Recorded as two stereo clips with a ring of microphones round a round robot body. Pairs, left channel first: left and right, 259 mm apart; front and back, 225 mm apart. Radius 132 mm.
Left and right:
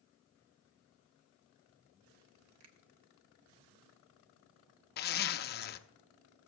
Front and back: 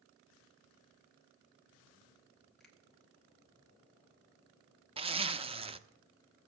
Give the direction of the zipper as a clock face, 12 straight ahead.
8 o'clock.